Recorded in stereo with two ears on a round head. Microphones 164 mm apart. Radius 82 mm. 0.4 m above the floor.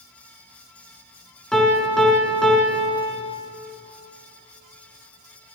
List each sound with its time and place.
1.5 s a piano: 5° left (ahead or behind), 1.1 m